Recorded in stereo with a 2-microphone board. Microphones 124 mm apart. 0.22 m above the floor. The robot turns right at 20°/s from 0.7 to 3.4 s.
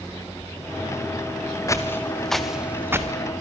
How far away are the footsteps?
About 2 m.